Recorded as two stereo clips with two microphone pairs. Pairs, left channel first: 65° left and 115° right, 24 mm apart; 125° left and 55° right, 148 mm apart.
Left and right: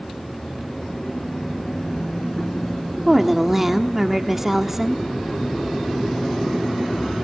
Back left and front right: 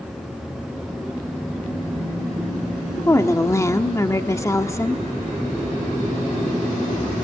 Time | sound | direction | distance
3.1 | a woman speaking | straight behind | 1.2 m